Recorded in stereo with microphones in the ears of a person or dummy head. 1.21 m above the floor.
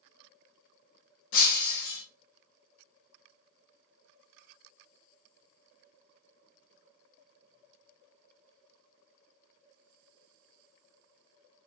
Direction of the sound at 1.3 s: 65° left (ahead or behind).